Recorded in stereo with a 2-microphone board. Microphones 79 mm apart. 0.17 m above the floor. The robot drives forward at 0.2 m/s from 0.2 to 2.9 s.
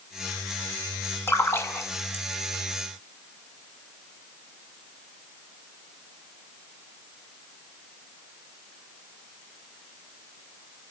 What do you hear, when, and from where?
1.3 s a splash: 30° left (ahead or behind), 1.0 m